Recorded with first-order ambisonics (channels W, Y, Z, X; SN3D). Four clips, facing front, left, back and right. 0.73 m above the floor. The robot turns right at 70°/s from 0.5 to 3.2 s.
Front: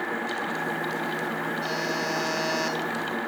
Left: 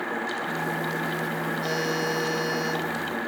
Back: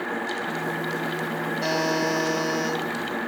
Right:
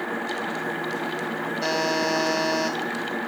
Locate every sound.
1.6 s a buzzer: 120° right, 3 m; by 2.8 s 40° right, 3 m